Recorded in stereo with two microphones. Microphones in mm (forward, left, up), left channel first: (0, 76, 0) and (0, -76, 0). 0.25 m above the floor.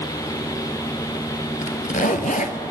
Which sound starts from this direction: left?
A zipper, at 1.6 s.